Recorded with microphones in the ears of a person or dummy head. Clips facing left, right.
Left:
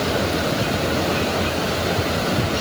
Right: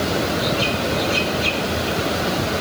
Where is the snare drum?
I don't hear a snare drum.